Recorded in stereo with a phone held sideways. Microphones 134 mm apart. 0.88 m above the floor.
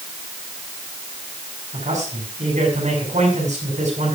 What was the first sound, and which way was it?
A man speaking, 75° right (ahead or behind).